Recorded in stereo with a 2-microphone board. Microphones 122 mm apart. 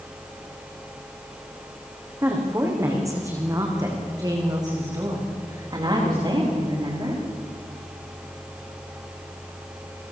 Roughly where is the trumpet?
No trumpet in this recording.